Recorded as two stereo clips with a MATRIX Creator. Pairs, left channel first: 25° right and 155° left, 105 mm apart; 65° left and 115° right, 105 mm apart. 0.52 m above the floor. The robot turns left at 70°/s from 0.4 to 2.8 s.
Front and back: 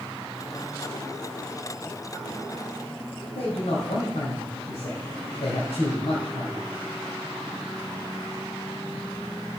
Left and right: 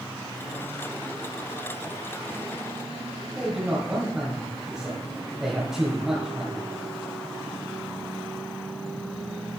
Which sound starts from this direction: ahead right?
A man speaking, at 3.4 s.